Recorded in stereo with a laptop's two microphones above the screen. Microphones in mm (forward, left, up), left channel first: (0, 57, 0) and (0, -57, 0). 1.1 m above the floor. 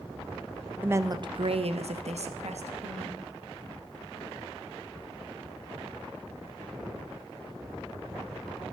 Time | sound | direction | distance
0.8 | a woman speaking | 15° right (ahead or behind) | 0.5 m